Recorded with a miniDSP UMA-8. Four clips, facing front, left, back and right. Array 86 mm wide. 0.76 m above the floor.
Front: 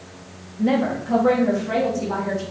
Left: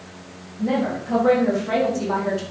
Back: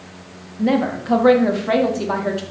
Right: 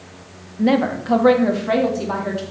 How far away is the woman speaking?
About 1.4 m.